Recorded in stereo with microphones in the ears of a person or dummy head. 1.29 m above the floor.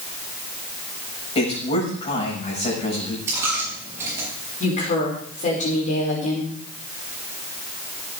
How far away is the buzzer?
No buzzer in this recording.